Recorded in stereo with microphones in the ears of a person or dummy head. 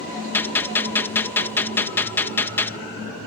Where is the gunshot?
10° left (ahead or behind).